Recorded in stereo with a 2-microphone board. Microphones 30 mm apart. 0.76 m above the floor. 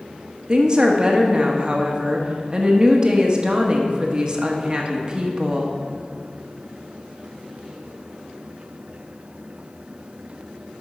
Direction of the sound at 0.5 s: 30° right (ahead or behind).